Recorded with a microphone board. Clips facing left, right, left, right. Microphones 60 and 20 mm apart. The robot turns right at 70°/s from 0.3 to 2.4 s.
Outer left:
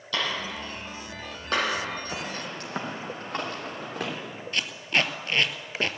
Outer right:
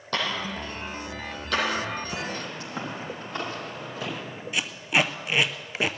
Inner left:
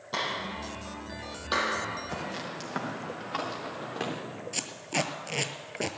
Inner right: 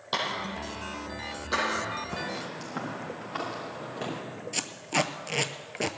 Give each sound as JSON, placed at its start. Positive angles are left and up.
{"t": 0.1, "sound": "a clap", "side_deg": -50, "distance_m": 6.0}
{"t": 2.1, "sound": "footsteps", "side_deg": 40, "distance_m": 5.0}
{"t": 4.5, "sound": "tape being pulled", "side_deg": -10, "distance_m": 0.6}